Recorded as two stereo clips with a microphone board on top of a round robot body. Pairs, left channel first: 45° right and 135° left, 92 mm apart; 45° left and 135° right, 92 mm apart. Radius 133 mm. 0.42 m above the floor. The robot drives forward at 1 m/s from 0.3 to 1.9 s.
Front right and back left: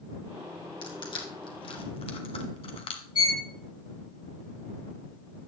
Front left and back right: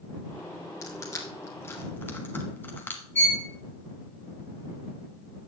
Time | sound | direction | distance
0.8 | crushing | 10° right | 2 m
3.1 | a violin | 20° right | 3 m